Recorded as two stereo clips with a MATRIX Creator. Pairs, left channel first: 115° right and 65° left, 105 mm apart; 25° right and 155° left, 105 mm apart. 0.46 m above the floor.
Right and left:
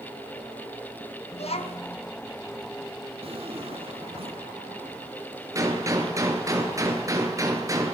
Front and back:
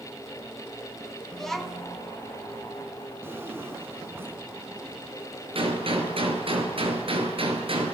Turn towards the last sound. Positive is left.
turn(degrees=125)